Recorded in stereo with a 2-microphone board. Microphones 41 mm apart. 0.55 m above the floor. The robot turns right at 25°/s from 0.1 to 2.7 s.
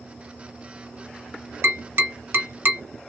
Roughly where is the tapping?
Right.